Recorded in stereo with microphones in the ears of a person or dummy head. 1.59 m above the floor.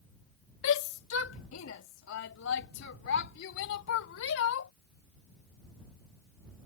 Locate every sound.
0.6 s a shout: 75° left (ahead or behind)